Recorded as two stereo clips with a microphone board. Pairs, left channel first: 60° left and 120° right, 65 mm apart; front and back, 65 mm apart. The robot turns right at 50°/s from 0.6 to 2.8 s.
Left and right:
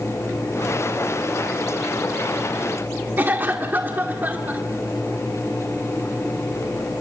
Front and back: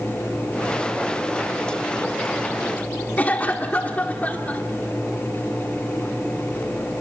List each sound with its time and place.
3.2 s a cough: 60° right, 1.5 m